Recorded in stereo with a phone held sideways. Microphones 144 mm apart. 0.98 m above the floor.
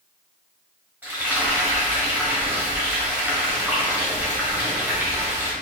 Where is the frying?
10° right (ahead or behind), 1.6 m.